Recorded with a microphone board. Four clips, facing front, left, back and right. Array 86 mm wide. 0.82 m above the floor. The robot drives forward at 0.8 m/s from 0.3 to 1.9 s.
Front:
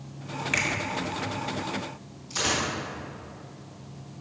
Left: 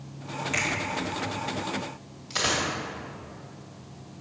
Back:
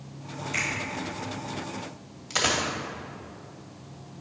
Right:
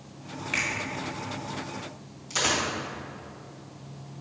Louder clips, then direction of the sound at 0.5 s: Left 1 dB, front 3 dB; 10° right.